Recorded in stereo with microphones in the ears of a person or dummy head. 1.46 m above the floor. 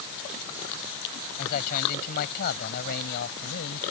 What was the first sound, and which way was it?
A man speaking, 50° left (ahead or behind).